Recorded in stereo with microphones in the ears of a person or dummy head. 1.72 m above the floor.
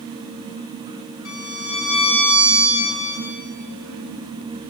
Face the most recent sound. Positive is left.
turn(degrees=70)  # may be behind; listen again after turning